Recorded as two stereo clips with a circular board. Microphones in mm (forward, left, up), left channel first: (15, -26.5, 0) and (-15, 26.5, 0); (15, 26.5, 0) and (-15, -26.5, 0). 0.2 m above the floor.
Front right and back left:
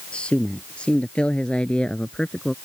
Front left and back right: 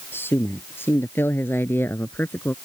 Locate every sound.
0.1 s a man speaking: 10° left